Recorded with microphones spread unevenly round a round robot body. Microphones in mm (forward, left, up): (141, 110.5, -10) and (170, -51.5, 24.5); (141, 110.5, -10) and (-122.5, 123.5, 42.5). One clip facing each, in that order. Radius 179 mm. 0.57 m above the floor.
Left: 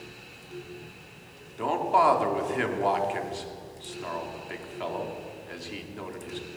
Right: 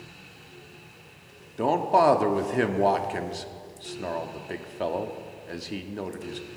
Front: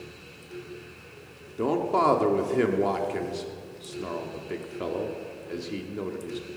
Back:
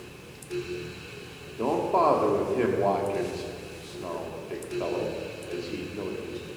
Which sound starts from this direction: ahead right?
A man speaking, at 1.6 s.